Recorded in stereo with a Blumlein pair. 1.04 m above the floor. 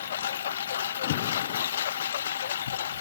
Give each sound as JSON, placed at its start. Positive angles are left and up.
{"t": 0.0, "sound": "a lawn mower", "azimuth_deg": 65}
{"t": 1.0, "sound": "an alarm", "azimuth_deg": 50}